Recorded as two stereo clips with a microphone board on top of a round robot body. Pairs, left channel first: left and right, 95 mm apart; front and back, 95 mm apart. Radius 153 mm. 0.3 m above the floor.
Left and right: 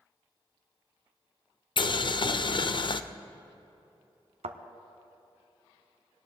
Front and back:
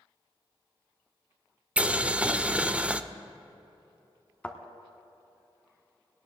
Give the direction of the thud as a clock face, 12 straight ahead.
3 o'clock.